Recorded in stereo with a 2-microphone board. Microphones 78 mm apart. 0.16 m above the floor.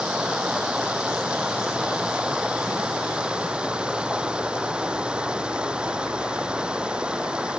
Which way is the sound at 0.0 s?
10° right (ahead or behind).